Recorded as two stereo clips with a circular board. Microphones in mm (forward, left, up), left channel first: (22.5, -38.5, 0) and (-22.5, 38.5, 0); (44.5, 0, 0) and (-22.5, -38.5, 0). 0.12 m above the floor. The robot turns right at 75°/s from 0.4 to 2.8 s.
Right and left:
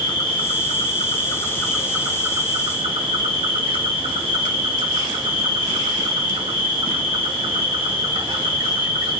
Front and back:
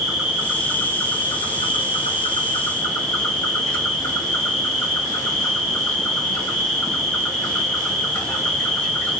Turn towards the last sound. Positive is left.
turn(degrees=110)